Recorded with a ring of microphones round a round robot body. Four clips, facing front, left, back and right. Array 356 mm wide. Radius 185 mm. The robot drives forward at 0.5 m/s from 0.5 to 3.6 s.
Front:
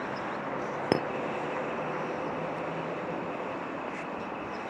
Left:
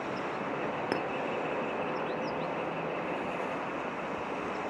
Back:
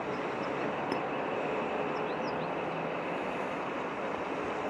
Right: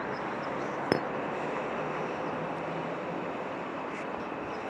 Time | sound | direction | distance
0.9 | a clink | 30° right | ?